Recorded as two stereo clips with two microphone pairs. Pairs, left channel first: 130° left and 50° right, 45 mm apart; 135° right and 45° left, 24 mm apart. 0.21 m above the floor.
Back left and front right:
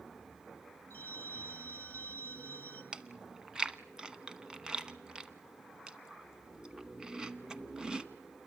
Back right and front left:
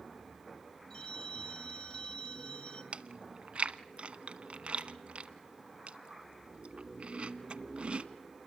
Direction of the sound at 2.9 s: 20° left.